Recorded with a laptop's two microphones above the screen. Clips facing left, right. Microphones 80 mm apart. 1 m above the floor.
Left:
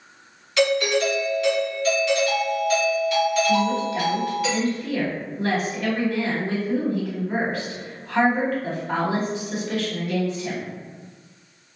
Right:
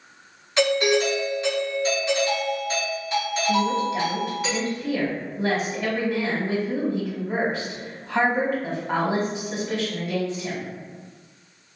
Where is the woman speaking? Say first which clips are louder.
Left 1 dB; 25° right (ahead or behind), 1.3 m.